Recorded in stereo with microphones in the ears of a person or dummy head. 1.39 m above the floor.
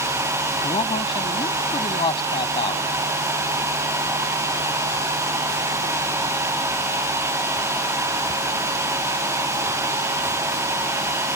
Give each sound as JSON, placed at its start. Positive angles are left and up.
{"t": 0.6, "sound": "a man speaking", "side_deg": 25}